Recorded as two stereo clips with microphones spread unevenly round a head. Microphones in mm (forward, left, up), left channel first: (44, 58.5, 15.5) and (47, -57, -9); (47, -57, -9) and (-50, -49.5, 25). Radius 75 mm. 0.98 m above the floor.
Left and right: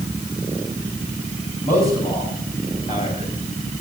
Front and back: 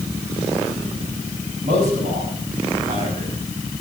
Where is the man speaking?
145° left, 6.5 m; by 3.3 s 150° left, 7 m.